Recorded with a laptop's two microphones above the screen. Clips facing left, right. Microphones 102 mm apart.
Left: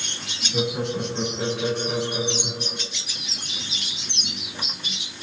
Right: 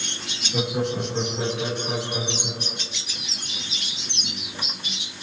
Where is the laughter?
35° right (ahead or behind), 7 m.